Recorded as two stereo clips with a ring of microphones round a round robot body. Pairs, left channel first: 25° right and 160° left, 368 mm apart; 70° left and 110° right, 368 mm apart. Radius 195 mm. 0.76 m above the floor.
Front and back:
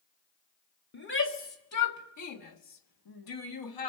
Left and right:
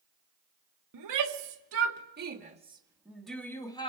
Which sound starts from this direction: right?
A shout, at 0.9 s.